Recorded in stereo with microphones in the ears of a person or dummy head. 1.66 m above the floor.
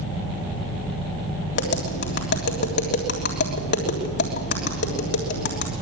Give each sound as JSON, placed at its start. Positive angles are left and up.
{"t": 1.6, "sound": "tapping", "side_deg": 50, "distance_m": 3.5}